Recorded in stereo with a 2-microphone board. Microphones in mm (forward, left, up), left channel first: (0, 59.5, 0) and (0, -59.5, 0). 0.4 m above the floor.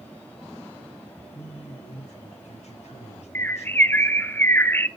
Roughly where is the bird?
Centre.